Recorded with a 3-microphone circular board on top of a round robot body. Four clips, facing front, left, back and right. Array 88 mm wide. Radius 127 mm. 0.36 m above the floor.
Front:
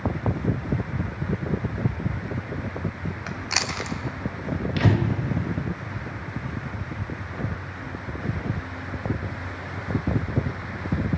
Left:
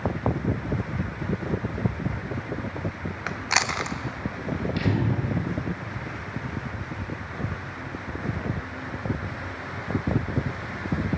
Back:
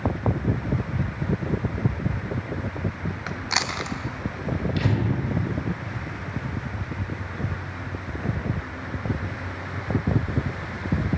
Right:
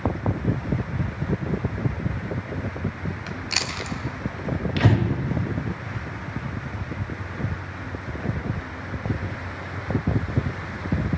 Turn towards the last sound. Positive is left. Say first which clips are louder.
# right 5 dB, front 5 dB
turn(degrees=-55)